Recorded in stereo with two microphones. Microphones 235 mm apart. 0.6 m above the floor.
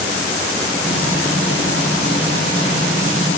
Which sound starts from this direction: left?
Frying, at 0.8 s.